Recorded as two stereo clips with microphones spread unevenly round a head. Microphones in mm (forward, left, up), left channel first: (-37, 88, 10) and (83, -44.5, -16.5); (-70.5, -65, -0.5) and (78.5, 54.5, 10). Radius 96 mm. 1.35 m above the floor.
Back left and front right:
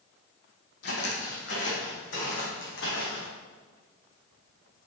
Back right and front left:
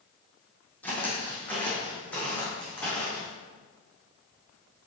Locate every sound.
0.8 s footsteps: 135° left, 3 m